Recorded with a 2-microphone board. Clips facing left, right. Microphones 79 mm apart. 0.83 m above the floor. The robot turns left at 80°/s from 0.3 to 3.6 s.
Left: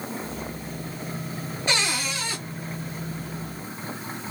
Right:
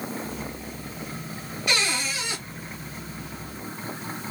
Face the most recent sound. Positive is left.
turn(degrees=-125)